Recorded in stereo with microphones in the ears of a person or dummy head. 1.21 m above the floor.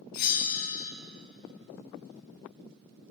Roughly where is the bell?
Left.